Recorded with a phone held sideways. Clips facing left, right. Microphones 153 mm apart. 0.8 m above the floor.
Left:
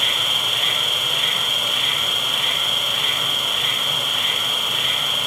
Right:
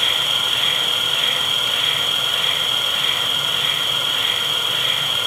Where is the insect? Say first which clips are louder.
Right 1 dB; 70° right (ahead or behind), 2.5 m.